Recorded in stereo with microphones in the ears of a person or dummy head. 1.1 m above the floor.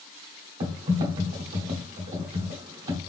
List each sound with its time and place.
0.6 s typing on a keyboard: 25° right (ahead or behind), 0.9 m